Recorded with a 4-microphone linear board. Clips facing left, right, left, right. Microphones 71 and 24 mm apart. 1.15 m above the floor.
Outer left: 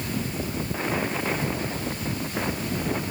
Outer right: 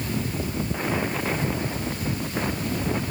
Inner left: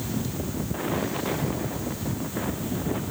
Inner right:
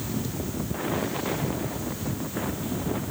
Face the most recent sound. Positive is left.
No sound to turn to.